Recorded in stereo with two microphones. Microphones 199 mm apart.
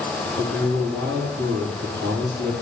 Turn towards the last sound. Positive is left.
turn(degrees=-65)  # may be behind; listen again after turning